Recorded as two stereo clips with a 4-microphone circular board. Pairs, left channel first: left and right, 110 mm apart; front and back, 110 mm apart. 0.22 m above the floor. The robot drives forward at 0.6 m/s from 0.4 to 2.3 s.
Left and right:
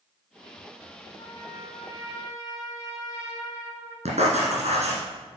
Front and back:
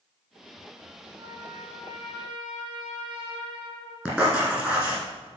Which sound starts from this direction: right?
Writing, at 4.0 s.